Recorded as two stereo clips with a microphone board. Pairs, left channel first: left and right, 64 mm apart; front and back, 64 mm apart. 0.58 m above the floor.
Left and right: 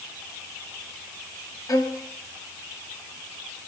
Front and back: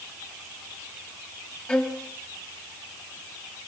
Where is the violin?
70° left, 4 m.